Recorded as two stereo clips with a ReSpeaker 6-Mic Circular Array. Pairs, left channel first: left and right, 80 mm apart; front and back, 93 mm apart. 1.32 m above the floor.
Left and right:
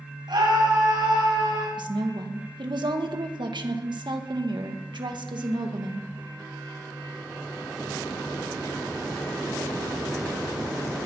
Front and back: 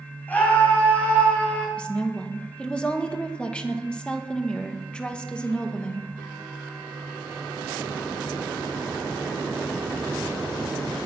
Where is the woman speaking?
80° right, 1.7 m.